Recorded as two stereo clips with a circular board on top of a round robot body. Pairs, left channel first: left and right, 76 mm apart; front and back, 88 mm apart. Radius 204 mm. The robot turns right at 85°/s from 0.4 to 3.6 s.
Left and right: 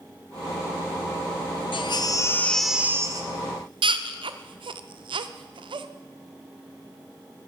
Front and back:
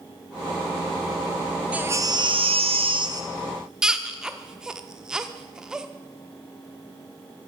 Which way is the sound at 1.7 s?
105° left.